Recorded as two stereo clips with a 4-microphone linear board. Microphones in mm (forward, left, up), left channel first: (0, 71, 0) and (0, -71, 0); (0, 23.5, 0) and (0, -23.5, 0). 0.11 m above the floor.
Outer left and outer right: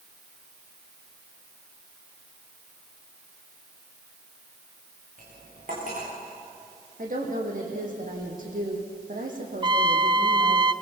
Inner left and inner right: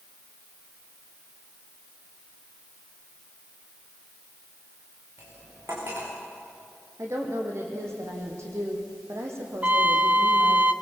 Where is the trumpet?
35° right (ahead or behind), 0.6 m.